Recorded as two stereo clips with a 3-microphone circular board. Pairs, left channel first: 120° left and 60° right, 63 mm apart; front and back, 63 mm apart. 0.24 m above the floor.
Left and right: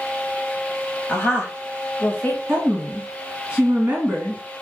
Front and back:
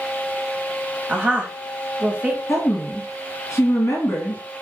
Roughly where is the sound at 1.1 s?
Behind left.